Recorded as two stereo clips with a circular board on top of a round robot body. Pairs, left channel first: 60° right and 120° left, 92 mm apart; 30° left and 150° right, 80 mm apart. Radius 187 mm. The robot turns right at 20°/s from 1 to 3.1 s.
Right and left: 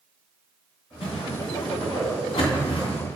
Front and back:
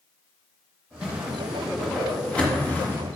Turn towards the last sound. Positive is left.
turn(degrees=-30)